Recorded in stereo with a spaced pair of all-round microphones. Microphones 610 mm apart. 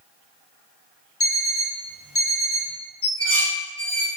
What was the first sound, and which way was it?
An alarm clock, 20° left (ahead or behind).